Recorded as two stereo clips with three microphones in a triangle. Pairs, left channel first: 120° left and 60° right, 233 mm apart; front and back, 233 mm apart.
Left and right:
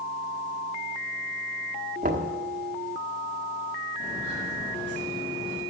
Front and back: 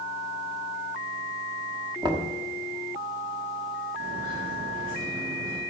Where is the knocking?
110° right, 1.2 m.